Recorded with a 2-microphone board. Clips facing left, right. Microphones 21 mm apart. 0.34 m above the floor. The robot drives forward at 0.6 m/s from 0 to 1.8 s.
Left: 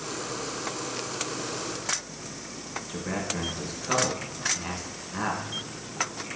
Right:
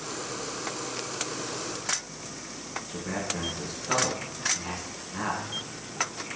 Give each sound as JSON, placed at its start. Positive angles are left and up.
{"t": 2.9, "sound": "a man speaking", "side_deg": 10, "distance_m": 0.8}